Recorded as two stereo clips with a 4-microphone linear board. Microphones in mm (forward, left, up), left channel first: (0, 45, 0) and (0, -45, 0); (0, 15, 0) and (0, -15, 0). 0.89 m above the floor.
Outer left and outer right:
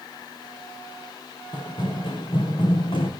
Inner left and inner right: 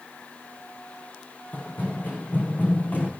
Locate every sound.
1.5 s running footsteps: 55° left (ahead or behind), 3 m; by 3.1 s 70° left (ahead or behind), 2.5 m